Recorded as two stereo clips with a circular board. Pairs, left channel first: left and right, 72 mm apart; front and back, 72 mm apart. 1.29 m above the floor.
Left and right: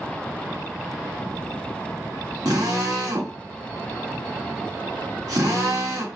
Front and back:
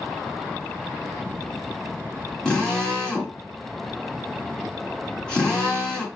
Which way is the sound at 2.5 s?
80° right.